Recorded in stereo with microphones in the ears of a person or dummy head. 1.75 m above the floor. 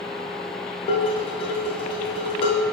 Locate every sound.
0.9 s dishes clattering: 30° left (ahead or behind), 1.0 m